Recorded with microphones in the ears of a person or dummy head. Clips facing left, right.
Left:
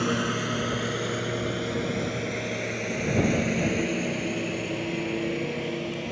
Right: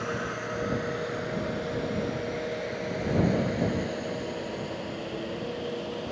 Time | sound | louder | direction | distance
0.0 | a lawn mower | left 6 dB | 50° left (ahead or behind) | ?